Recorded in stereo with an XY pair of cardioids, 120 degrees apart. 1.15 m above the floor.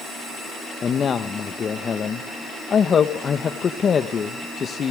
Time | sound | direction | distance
0.8 | a man speaking | 40° left | 1.0 m